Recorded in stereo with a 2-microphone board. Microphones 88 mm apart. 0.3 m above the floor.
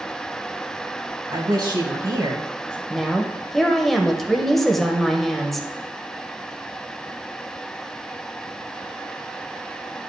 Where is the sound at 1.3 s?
50° right (ahead or behind), 2.5 m.